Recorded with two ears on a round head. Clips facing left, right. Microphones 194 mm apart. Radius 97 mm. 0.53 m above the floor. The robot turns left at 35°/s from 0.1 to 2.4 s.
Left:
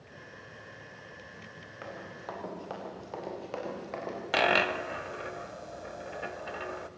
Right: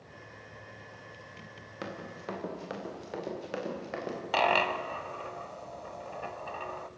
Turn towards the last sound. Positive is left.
turn(degrees=20)  # may be behind; listen again after turning